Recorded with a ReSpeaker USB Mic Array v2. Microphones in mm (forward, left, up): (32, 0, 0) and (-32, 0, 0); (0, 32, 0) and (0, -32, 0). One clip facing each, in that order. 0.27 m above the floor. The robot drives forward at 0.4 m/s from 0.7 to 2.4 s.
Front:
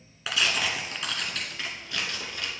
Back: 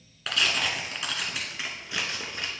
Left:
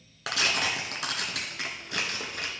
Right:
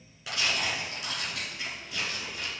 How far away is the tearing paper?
About 1.2 m.